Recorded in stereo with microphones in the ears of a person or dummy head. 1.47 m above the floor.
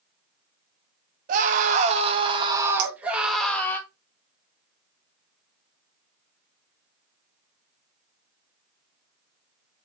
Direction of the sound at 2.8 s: 55° right (ahead or behind).